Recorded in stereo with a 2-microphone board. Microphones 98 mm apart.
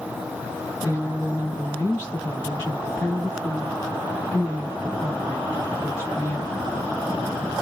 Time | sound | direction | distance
0.8 | a woman speaking | 20° left (ahead or behind) | 1.1 m